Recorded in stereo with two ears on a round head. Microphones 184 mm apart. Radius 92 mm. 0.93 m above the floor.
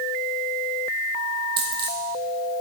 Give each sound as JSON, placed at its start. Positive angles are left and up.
{"t": 1.6, "sound": "a dropped coin", "side_deg": -55, "distance_m": 3.0}